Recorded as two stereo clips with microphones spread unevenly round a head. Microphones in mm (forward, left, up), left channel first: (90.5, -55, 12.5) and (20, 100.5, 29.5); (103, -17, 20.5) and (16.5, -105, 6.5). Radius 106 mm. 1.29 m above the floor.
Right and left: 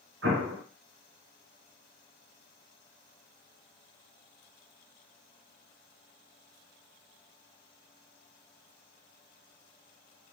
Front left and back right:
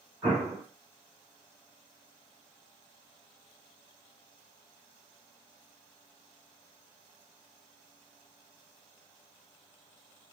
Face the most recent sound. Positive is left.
turn(degrees=150)